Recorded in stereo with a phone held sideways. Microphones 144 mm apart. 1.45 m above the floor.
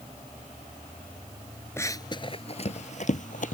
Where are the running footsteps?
15° left (ahead or behind); by 3.5 s 60° left (ahead or behind).